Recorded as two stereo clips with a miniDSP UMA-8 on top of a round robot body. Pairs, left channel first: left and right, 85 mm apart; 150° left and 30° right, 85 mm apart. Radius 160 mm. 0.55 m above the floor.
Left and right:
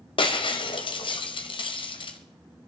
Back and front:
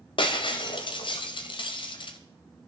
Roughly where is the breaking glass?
Behind left.